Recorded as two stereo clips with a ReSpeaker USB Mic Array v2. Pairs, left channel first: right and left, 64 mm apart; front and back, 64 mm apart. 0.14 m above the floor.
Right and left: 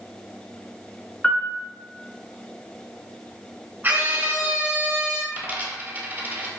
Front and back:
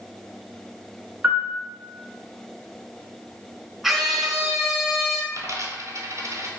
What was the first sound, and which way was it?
A piano, 150° right.